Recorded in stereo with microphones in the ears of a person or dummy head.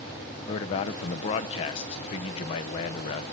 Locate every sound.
0.5 s a man speaking: 30° left (ahead or behind), 0.7 m